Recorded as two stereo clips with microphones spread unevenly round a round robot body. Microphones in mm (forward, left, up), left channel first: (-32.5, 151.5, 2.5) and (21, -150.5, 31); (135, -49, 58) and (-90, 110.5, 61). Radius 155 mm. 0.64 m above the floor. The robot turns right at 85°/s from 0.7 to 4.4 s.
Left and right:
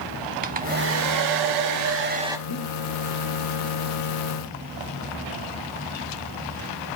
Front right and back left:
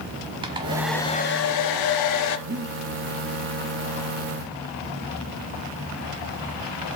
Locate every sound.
0.4 s a hair dryer: 140° right, 0.9 m; by 2.4 s straight ahead, 0.9 m
2.5 s breathing: 95° left, 1.8 m; by 2.7 s 120° left, 1.8 m